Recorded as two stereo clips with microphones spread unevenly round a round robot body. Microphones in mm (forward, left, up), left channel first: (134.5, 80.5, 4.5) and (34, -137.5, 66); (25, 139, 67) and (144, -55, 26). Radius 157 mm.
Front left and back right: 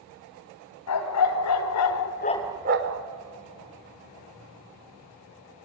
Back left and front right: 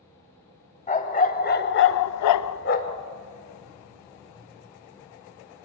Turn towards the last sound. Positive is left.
turn(degrees=-160)